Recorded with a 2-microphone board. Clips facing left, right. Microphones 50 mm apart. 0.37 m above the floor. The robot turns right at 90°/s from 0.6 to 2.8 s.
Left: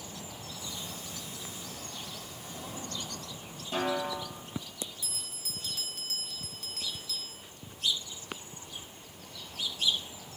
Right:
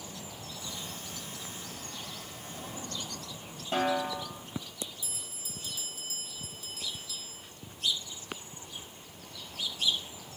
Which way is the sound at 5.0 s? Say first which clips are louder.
Left 2 dB; 75° left (ahead or behind).